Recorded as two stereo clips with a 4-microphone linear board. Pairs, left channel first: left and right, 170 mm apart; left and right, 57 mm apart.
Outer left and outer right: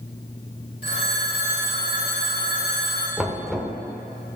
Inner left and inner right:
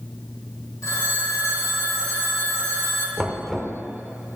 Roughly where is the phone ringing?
Left.